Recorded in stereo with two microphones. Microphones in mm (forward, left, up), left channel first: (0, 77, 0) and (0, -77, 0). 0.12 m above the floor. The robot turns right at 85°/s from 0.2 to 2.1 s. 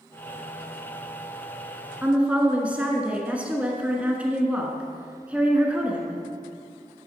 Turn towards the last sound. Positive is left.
turn(degrees=-10)  # may be behind; listen again after turning